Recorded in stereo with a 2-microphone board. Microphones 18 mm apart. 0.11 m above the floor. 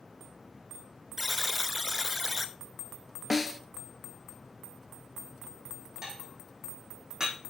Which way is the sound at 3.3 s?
10° right (ahead or behind).